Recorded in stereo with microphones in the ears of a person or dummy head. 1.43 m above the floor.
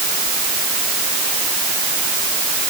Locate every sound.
Only background noise.